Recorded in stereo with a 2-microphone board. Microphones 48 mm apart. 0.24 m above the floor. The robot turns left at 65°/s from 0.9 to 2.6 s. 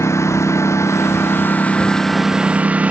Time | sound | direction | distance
0.0 | a lawn mower | 85° left | ?